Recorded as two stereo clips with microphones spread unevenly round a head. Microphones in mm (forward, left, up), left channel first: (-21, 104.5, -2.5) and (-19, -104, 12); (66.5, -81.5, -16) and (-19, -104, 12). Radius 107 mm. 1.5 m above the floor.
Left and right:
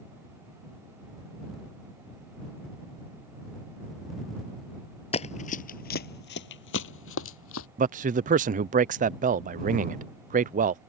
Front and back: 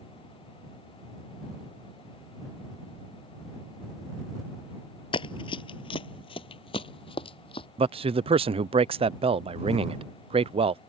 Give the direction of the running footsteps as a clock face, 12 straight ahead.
11 o'clock.